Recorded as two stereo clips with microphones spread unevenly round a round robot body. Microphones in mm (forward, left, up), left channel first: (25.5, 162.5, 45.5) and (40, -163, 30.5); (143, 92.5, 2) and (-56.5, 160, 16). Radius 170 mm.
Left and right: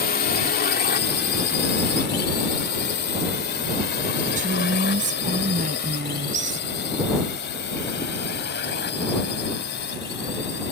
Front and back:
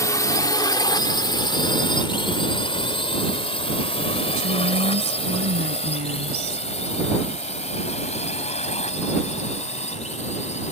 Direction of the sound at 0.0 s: 45° left.